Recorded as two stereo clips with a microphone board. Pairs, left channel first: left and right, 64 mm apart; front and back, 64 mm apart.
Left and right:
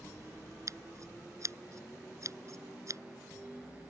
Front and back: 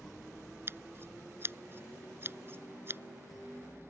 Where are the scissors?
125° right.